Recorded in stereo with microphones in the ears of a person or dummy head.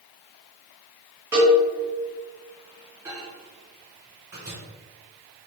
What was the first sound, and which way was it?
A cowbell, 10° right (ahead or behind).